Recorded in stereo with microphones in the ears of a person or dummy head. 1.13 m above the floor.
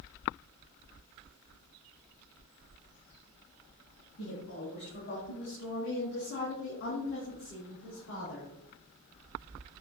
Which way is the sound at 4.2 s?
45° left (ahead or behind).